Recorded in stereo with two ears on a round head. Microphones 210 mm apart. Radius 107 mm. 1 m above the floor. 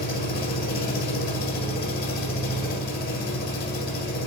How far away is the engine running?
About 1.9 m.